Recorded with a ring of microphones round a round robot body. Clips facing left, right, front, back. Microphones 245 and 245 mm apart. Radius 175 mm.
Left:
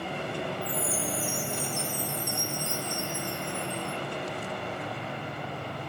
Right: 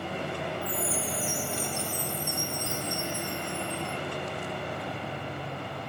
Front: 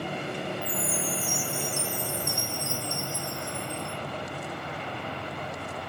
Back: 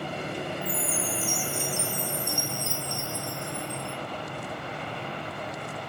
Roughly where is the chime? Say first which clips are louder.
Even, even; left.